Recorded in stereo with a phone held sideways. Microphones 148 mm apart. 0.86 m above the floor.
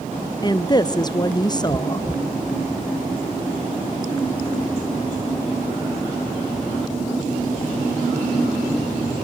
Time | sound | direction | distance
0.4 | a woman speaking | 30° left (ahead or behind) | 0.6 m